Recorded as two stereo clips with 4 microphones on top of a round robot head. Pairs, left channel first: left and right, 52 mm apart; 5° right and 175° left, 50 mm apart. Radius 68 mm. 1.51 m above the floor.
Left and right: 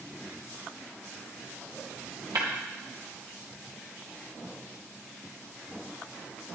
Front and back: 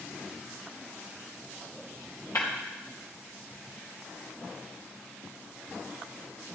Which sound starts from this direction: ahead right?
Breaking glass, at 2.4 s.